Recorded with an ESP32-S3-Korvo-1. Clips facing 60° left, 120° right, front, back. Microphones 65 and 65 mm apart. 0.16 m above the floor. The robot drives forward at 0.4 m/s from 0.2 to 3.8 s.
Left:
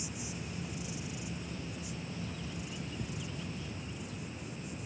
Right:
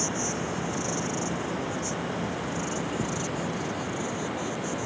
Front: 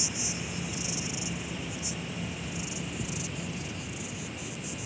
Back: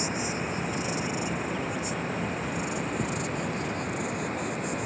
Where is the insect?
130° right; by 4.9 s 135° right.